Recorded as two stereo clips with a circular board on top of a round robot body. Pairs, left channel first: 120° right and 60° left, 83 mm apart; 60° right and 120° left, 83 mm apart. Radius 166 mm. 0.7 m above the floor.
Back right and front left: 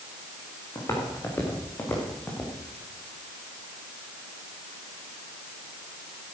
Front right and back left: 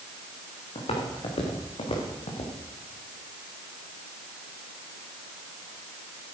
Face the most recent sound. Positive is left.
turn(degrees=-45)